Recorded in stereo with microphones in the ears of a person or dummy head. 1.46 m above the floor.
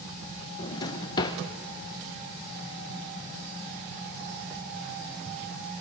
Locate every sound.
0.6 s a drawer: 20° left (ahead or behind), 0.6 m